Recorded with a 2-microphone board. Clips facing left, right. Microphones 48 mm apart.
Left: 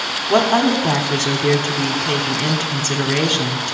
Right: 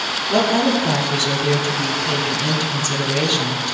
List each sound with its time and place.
0.3 s a woman speaking: 45° left (ahead or behind), 1.4 m